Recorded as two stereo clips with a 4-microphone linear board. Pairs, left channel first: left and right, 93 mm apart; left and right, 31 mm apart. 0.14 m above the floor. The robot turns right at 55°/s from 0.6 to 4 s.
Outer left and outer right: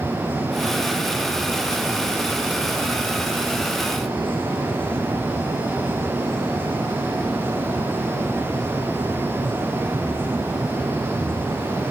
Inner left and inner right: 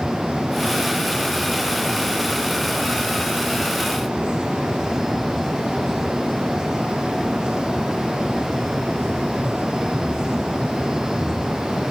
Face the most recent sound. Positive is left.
No sound to turn to.